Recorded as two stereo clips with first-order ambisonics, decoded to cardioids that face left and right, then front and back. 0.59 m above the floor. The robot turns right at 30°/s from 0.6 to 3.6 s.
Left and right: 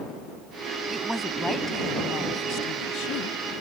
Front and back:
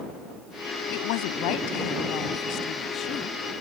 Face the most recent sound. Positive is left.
turn(degrees=75)